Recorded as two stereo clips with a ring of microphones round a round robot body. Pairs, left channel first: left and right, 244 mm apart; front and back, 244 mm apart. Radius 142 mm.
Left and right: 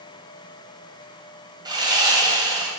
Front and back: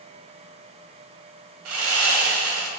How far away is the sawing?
About 2.5 m.